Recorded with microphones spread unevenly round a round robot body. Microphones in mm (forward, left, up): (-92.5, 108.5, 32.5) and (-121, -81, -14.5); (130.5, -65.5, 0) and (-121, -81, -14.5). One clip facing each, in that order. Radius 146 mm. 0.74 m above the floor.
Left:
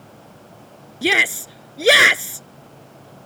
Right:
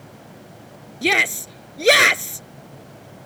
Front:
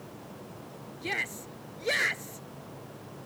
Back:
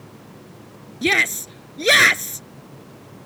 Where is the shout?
160° left.